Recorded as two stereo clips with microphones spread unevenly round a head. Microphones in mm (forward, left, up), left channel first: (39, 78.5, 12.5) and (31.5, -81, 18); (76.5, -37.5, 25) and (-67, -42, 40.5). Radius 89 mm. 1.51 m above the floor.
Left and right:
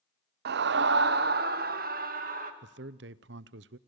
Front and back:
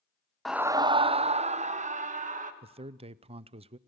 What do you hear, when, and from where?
0.5 s a scream: 85° right, 0.6 m; by 2.5 s 140° right, 2.5 m
2.6 s a man speaking: 125° right, 0.6 m